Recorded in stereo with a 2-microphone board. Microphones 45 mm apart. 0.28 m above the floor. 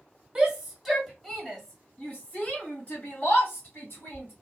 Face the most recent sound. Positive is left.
turn(degrees=50)  # may be behind; listen again after turning